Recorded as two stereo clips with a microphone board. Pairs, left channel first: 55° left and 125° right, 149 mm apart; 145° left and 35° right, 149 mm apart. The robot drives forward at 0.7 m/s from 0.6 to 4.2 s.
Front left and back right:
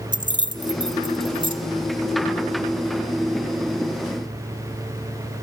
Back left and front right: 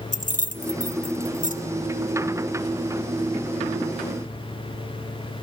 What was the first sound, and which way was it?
Keys jangling, 175° left.